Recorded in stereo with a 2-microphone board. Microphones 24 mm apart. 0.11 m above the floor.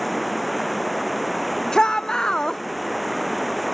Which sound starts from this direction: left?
A shout, at 1.7 s.